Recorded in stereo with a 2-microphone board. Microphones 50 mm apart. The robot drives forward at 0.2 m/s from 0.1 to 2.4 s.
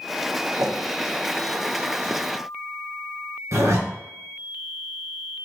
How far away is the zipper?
About 1.4 m.